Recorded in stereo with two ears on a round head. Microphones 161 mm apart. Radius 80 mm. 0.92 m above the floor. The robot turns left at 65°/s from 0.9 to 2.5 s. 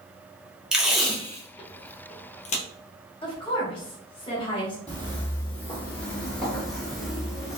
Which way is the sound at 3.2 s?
25° left (ahead or behind).